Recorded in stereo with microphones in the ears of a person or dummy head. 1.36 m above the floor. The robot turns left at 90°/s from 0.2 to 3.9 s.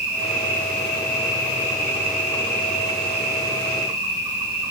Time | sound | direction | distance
0.0 | an insect | 170° right | 3 m